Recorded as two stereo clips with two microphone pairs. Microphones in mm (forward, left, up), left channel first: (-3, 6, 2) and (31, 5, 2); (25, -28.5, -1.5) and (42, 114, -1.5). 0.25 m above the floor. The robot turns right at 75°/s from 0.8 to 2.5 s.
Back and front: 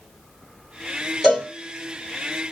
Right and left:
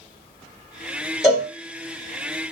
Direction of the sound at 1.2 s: 110° right.